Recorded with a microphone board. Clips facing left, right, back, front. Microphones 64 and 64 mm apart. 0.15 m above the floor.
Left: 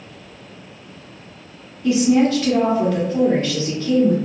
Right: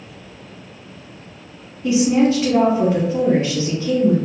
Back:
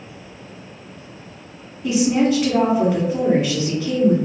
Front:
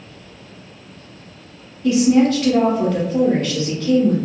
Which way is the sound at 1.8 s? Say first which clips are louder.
Even, front 3 dB; 125° right.